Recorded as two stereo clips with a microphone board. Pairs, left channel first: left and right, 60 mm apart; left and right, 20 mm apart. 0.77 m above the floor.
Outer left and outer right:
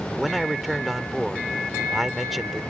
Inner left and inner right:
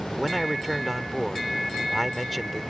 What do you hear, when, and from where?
0.1 s a man speaking: centre (ahead or behind)